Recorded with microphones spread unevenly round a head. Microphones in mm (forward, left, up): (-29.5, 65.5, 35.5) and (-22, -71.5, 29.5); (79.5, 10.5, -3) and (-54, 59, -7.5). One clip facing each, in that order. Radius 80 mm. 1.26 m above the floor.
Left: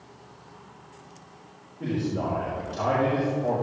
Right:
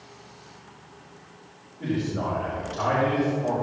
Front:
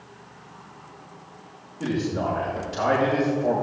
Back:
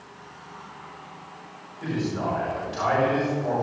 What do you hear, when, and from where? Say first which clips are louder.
1.8 s a man speaking: even, front 2 dB; 25° left, 5 m